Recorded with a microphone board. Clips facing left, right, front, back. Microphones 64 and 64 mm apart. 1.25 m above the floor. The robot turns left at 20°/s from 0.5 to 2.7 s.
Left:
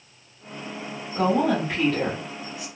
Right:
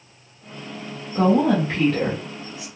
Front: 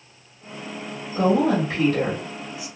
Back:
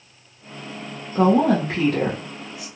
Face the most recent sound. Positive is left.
turn(degrees=175)